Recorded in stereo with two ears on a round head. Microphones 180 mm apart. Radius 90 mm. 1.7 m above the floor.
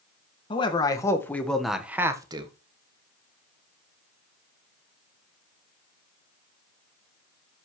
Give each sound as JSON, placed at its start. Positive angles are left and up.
{"t": 0.5, "sound": "a man speaking", "side_deg": 25, "distance_m": 2.0}